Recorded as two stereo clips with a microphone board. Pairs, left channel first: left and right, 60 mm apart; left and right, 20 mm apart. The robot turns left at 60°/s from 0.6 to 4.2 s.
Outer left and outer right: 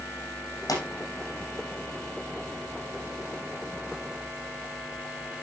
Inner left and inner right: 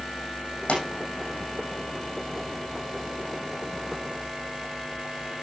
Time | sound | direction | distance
0.7 | a pop | 75° left (ahead or behind) | 6.5 m